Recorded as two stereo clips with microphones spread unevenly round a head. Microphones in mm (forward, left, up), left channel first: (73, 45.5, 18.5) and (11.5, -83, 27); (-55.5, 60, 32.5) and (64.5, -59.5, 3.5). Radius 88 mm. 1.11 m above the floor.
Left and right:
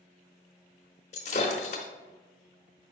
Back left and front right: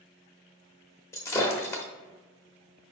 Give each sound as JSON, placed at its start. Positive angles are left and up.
{"t": 1.1, "sound": "breaking glass", "azimuth_deg": 85, "distance_m": 0.9}